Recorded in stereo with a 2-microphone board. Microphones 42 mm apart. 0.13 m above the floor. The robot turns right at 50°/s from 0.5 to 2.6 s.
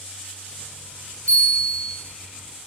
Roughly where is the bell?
Behind left.